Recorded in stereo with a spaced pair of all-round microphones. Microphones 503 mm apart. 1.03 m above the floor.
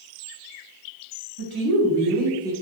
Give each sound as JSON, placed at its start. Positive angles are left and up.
{"t": 1.4, "sound": "a woman speaking", "side_deg": -50, "distance_m": 0.9}